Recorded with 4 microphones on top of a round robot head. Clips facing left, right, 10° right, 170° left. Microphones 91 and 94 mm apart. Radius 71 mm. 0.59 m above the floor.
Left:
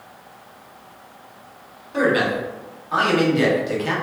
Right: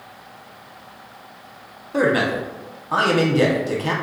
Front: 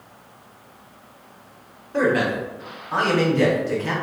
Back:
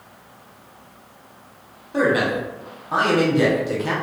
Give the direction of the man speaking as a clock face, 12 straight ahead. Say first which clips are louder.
Even, back 1 dB; 4 o'clock.